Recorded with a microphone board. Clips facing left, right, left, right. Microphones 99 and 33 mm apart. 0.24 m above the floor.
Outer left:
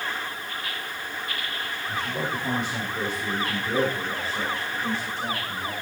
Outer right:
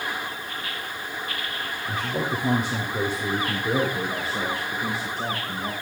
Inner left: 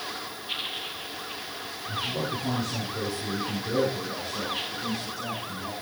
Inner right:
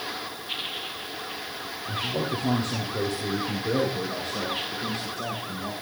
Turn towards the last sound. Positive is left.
turn(degrees=-40)  # may be behind; listen again after turning